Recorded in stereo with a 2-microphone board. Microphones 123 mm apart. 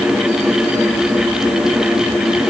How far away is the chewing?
No chewing in this recording.